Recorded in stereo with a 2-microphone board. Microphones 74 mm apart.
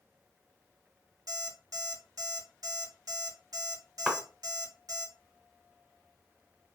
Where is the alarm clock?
65° right (ahead or behind), 0.9 m.